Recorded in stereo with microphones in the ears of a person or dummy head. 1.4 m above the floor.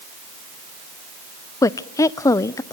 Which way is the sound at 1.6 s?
15° left (ahead or behind).